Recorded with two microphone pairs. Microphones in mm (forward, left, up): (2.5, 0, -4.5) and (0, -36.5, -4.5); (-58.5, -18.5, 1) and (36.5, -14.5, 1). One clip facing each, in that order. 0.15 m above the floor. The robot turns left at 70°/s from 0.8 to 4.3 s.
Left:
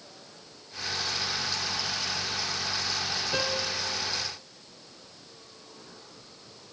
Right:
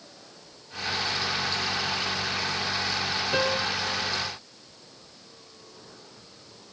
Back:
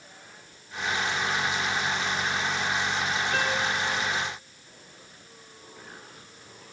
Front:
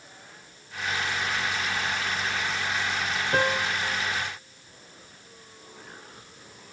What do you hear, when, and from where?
3.3 s a piano: 25° right, 1.2 m; by 3.8 s 60° right, 1.2 m